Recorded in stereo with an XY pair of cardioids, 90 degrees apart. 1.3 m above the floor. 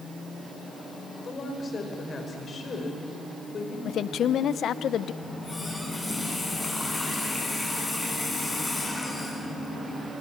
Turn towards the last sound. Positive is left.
turn(degrees=20)